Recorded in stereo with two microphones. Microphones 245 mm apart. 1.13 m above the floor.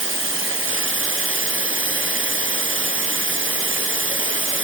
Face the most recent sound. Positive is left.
turn(degrees=-55)  # may be behind; listen again after turning